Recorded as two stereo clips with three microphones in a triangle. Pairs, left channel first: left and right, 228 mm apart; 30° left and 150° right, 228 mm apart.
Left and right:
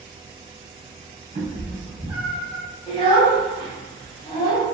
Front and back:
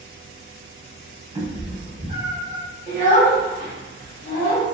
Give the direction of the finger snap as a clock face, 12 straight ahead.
No finger snap in this recording.